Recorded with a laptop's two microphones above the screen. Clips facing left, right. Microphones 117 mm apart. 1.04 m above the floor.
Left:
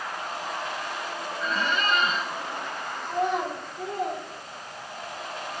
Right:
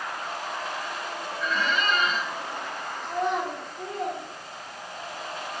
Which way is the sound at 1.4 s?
30° left (ahead or behind).